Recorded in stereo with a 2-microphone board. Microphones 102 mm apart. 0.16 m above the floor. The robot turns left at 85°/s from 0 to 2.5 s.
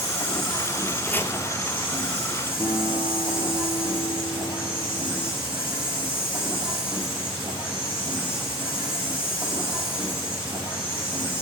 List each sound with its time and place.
0.0 s an insect: 90° left, 7 m; by 11.4 s 120° right, 7 m
1.1 s chopping: 15° left (ahead or behind), 1.2 m; by 1.3 s 35° left (ahead or behind), 1.2 m
2.6 s a guitar: 20° left (ahead or behind), 3 m